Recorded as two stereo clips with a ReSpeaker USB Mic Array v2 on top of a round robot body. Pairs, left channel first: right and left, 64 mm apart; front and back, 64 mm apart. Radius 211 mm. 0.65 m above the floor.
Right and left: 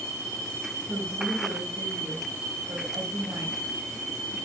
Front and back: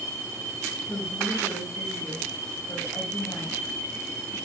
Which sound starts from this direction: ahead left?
A woman speaking, at 0.9 s.